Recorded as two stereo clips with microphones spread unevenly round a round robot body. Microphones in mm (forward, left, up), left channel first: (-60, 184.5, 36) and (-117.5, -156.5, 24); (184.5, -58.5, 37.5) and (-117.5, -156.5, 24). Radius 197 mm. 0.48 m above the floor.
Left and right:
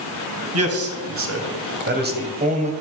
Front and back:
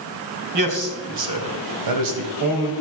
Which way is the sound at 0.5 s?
145° right.